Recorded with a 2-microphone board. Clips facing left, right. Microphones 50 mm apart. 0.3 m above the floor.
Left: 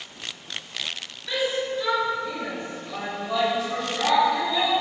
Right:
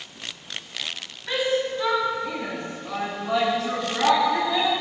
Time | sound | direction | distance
1.3 | a shout | 45° right (ahead or behind) | 2 m